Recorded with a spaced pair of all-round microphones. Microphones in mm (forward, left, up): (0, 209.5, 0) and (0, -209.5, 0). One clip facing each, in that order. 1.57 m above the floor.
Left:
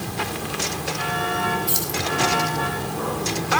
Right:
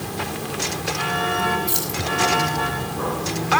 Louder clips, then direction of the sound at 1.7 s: Even; 45° left (ahead or behind).